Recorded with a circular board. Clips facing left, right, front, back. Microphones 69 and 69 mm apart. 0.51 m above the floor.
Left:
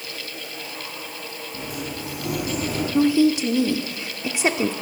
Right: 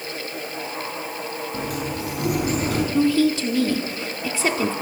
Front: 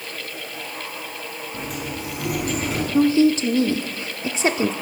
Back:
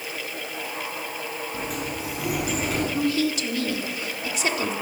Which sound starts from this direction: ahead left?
A woman speaking, at 2.9 s.